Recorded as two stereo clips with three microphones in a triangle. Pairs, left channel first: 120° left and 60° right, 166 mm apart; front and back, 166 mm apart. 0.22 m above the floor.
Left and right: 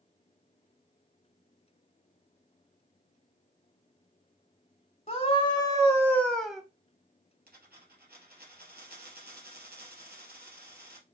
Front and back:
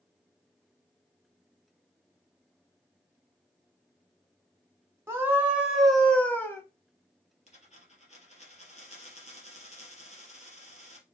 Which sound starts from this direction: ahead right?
A dropped coin, at 7.5 s.